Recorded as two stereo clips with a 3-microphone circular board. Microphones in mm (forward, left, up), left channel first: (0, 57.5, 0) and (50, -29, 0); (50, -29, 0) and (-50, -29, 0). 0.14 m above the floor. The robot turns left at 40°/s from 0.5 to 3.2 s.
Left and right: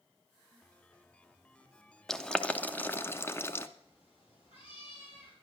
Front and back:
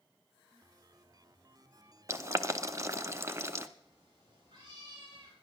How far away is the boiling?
About 0.7 m.